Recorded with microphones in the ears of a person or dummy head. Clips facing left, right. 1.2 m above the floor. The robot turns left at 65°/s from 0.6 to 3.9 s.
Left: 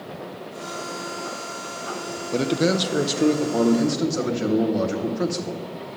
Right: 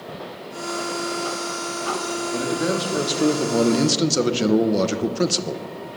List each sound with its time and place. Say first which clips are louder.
2.3 s a man speaking: left 4 dB; 55° left, 0.6 m; by 5.6 s 45° right, 0.6 m